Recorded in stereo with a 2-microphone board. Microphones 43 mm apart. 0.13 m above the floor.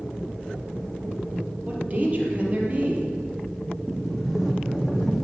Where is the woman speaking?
35° right (ahead or behind), 3.5 m.